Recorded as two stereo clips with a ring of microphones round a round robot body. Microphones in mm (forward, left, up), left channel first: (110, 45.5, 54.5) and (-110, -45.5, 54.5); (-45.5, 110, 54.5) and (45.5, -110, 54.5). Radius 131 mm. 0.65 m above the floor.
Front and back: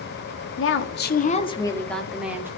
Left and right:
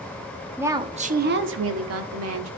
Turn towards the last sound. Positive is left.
turn(degrees=-75)